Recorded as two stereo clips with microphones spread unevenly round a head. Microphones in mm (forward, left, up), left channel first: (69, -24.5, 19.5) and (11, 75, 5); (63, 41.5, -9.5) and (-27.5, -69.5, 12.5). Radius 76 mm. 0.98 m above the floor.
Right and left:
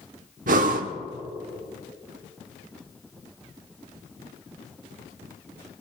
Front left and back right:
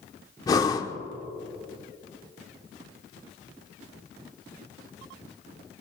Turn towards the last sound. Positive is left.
turn(degrees=125)